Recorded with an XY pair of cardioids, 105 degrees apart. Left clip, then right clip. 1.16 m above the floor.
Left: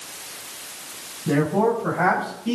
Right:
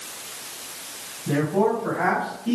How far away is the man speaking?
About 5 m.